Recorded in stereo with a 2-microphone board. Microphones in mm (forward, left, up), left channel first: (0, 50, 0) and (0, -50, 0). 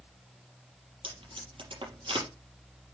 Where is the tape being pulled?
55° right (ahead or behind), 5 m.